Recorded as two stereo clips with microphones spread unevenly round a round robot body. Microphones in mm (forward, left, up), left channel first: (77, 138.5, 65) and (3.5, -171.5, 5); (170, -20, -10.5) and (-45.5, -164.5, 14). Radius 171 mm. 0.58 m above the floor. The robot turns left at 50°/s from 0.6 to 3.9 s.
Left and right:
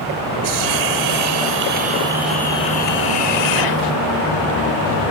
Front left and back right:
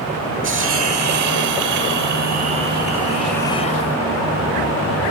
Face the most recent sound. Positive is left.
turn(degrees=90)